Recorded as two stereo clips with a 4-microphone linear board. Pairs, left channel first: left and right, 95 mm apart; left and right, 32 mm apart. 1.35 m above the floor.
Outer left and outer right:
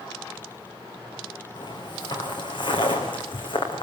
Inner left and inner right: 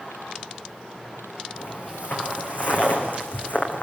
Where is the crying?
I don't hear crying.